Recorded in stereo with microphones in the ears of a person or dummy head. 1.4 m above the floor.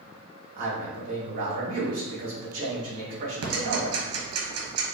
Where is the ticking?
75° right (ahead or behind), 1.2 m.